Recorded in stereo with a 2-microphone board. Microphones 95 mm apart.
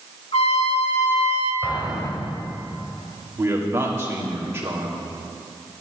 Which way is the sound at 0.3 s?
85° left.